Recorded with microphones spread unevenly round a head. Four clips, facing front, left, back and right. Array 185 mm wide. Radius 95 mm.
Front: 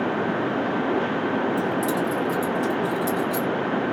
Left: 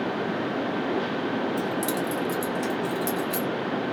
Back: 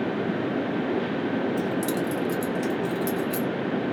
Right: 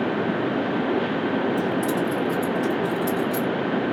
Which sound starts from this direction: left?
Keys jangling, at 1.6 s.